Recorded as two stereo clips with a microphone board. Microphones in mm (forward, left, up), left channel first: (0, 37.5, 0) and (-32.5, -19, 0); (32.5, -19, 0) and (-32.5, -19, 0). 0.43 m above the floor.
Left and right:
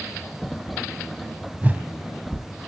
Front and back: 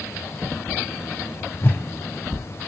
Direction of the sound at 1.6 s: 55° right.